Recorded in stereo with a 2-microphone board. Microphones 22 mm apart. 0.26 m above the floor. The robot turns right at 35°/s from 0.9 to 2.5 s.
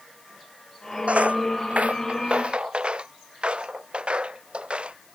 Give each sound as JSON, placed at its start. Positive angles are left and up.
{"t": 1.1, "sound": "footsteps", "side_deg": -75}